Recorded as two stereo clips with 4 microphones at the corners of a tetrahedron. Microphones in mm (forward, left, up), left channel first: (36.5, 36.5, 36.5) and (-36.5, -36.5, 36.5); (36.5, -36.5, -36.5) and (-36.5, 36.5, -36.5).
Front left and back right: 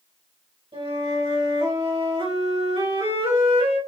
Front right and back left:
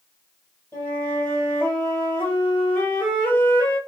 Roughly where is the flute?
Behind right.